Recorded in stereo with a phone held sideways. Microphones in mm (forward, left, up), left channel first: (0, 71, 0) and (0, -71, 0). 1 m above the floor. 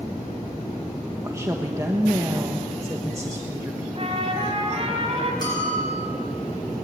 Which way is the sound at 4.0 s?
45° right (ahead or behind).